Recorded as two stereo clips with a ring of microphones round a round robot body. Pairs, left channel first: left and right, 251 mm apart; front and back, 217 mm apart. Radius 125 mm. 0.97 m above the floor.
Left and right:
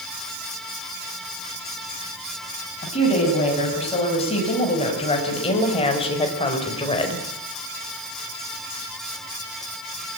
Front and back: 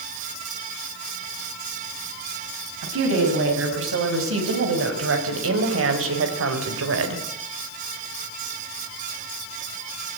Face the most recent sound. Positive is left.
turn(degrees=160)